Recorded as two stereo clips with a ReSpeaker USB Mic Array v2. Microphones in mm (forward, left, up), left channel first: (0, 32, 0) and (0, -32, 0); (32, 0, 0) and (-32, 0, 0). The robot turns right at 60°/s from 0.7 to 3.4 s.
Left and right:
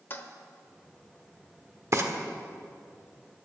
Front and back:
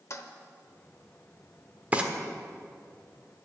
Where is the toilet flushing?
35° left, 1.1 m.